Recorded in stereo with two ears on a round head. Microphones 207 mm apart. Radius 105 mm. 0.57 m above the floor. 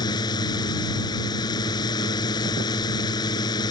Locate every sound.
0.0 s a drone: 20° left (ahead or behind)